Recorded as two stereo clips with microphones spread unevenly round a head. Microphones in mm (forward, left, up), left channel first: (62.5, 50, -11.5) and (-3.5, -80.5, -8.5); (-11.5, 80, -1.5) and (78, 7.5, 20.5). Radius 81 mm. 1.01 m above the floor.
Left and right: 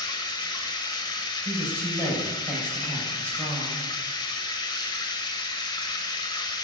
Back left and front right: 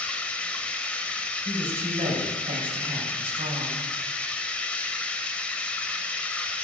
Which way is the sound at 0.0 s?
50° left.